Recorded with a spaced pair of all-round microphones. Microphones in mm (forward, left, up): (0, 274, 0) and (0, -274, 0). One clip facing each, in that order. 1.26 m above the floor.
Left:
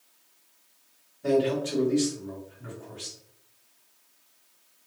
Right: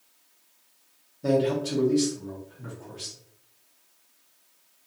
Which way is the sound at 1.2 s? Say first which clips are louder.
Even; 60° right (ahead or behind).